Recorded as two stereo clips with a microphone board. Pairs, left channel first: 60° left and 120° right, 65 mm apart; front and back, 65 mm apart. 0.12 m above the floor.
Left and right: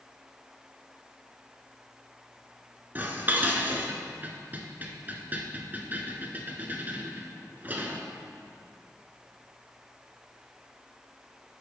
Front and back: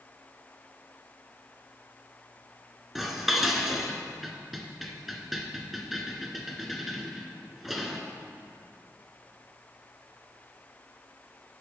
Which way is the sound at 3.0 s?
95° right.